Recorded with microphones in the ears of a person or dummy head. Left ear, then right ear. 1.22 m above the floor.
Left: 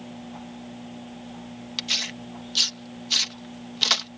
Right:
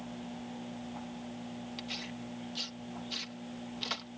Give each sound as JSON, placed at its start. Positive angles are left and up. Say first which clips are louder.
{"t": 1.8, "sound": "tearing paper", "louder": "left 16 dB", "side_deg": 40}